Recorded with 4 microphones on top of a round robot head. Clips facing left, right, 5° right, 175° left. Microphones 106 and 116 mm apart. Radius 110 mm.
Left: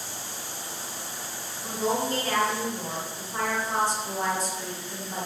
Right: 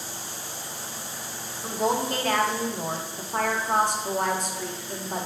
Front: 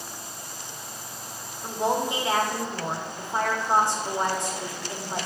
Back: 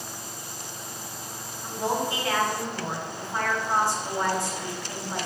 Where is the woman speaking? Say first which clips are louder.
Right 2 dB, front 2 dB; 70° right, 1.0 m.